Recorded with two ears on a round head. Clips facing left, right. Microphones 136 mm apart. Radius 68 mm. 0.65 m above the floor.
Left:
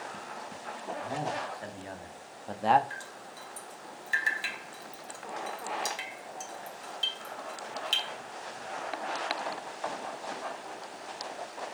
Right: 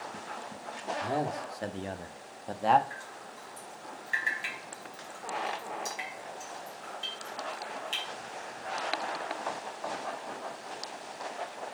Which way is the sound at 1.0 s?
55° right (ahead or behind).